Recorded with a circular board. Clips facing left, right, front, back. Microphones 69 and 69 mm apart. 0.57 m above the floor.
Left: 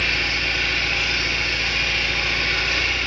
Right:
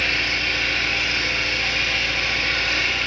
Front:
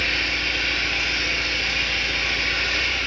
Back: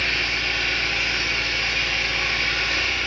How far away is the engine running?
About 1.5 m.